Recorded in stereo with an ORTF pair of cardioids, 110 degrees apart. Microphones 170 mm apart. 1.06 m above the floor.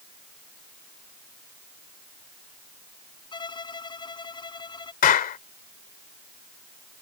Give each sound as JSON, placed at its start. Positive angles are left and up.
{"t": 3.3, "sound": "a violin", "azimuth_deg": 25}
{"t": 5.0, "sound": "a clap", "azimuth_deg": 55}